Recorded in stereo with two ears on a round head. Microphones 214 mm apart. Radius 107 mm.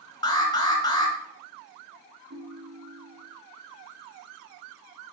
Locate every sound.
0.2 s an alarm: 15° left (ahead or behind), 2.5 m
2.3 s a ringtone: 55° right (ahead or behind), 2.5 m